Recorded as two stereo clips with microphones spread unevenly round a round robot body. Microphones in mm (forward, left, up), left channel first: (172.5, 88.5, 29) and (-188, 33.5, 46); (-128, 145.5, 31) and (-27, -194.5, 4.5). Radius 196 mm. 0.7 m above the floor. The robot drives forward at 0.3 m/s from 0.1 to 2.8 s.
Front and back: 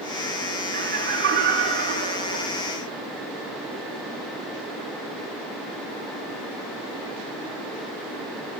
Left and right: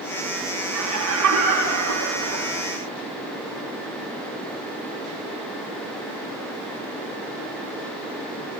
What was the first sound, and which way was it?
Laughter, 105° right.